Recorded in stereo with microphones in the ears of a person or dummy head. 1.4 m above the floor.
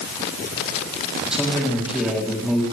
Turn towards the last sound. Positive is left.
turn(degrees=-5)  # may be behind; listen again after turning